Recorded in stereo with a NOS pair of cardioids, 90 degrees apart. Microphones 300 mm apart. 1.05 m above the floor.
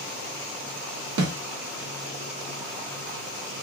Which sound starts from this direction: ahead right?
A snare drum, at 1.2 s.